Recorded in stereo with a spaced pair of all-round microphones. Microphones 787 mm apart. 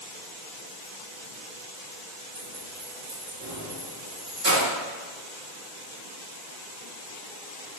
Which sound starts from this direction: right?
Keys jangling, at 2.4 s.